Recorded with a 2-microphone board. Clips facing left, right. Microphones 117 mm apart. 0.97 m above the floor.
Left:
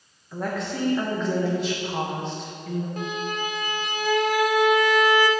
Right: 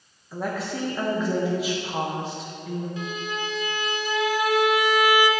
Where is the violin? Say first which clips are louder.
Left 2 dB; 50° left (ahead or behind), 0.6 m.